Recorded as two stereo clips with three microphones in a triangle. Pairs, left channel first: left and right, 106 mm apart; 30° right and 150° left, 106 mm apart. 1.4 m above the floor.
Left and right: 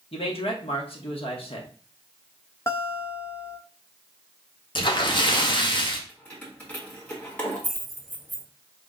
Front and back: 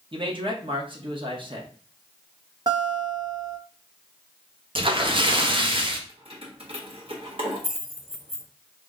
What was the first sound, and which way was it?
A man speaking, 115° left.